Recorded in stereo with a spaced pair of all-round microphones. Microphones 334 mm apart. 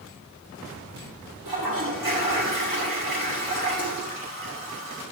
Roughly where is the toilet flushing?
Right.